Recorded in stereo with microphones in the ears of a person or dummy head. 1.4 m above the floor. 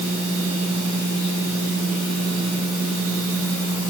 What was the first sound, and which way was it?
Only background noise.